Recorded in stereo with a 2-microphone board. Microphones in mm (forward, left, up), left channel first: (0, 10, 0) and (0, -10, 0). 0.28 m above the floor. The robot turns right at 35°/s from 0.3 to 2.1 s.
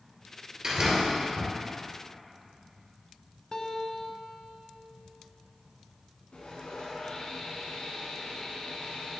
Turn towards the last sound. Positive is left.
turn(degrees=65)  # may be behind; listen again after turning